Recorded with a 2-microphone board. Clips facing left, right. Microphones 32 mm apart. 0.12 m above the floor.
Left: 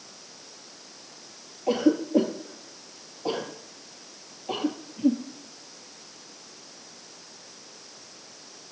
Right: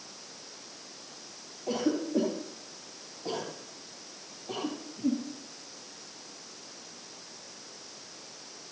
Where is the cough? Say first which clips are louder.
Left 7 dB; 30° left (ahead or behind), 2 m.